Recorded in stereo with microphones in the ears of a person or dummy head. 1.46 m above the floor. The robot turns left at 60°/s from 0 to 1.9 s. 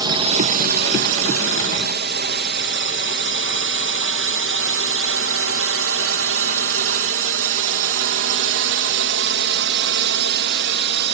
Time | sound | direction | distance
0.0 | a drone | 20° right (ahead or behind) | ?